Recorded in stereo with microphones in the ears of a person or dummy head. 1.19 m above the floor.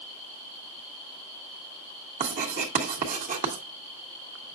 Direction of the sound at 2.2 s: 40° right (ahead or behind).